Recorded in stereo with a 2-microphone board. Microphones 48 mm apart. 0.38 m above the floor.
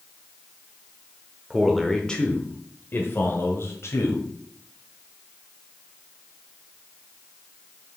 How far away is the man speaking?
About 0.9 m.